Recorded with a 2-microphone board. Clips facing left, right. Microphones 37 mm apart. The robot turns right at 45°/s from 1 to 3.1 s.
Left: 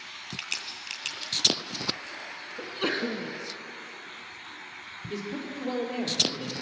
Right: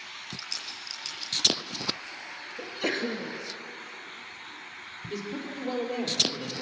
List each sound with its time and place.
0.4 s a crack: 70° left (ahead or behind), 3 m; by 1.6 s 50° left (ahead or behind), 3 m
2.6 s a sneeze: 35° left (ahead or behind), 1.6 m; by 3.3 s 25° left (ahead or behind), 1.6 m
5.1 s a man speaking: 15° left (ahead or behind), 4.5 m